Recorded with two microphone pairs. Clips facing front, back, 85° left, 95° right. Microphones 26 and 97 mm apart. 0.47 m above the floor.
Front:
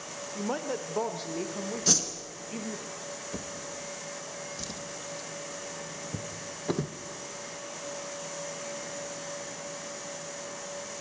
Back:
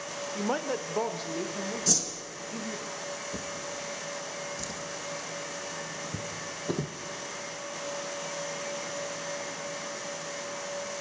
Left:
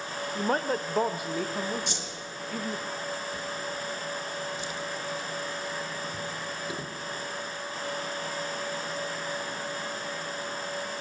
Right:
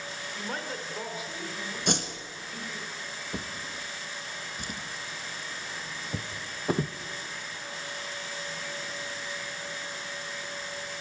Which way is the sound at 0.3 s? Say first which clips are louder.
Back 2 dB, left 10 dB; 120° left.